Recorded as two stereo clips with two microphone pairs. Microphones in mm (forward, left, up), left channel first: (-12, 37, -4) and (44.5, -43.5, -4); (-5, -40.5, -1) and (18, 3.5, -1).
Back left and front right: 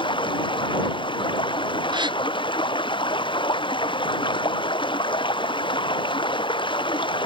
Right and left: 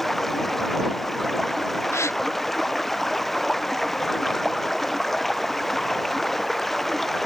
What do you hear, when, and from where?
0.0 s running water: 160° left
1.9 s a gasp: 95° right